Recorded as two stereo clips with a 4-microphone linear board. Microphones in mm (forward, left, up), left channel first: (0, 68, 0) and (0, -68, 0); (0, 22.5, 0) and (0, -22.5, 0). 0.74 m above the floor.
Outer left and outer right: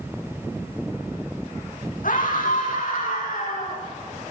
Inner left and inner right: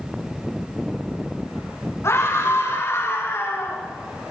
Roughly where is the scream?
Left.